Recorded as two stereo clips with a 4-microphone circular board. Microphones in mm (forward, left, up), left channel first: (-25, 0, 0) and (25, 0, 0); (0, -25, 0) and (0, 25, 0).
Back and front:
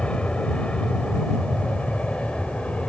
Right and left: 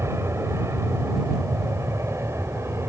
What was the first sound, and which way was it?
An aircraft, 110° left.